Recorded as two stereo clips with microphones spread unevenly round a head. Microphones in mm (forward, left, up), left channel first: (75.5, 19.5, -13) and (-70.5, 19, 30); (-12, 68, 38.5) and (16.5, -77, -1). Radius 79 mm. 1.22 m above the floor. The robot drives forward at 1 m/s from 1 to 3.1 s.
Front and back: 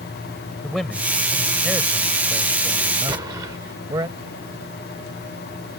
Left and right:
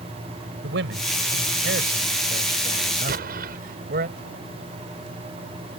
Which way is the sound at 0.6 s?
90° right.